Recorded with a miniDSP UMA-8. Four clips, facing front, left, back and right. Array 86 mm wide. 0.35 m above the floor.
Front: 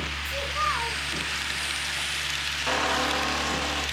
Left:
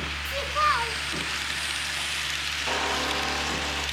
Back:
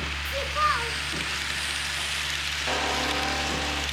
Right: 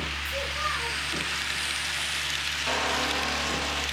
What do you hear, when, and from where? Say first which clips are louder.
0.2 s a child speaking: left 8 dB, back 3 dB; 80° left, 2 m
2.7 s a squeak: even, front 2 dB; 5° left, 3 m